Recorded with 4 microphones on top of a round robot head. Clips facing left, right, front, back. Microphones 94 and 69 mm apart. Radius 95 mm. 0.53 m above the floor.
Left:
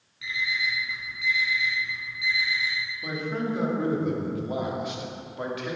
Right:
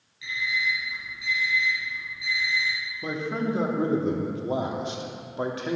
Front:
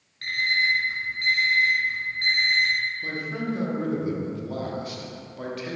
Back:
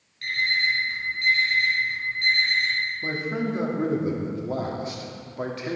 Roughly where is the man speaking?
Behind right.